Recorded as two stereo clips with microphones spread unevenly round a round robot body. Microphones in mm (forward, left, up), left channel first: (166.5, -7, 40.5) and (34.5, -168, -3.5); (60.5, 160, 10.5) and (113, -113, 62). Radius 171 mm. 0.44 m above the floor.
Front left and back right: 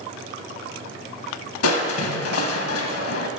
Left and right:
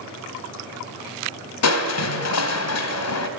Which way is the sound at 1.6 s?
65° left.